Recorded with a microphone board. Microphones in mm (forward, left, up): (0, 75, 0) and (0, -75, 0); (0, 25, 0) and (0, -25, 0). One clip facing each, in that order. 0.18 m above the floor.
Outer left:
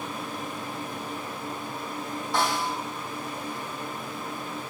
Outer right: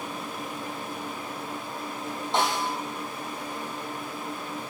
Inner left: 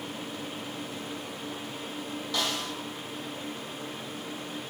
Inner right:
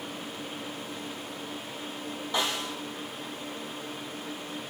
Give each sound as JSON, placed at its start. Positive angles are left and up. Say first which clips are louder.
{"t": 2.3, "sound": "a snare drum", "louder": "outer right 1 dB, inner right 2 dB", "side_deg": -25, "distance_m": 5.5}